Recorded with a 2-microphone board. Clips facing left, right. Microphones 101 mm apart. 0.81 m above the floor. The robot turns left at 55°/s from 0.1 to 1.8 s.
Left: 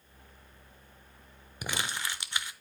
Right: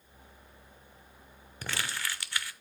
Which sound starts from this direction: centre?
Crumpling, at 1.6 s.